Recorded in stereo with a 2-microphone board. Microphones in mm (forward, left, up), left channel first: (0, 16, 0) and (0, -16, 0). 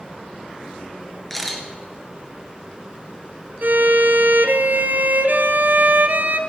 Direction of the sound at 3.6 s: 70° right (ahead or behind).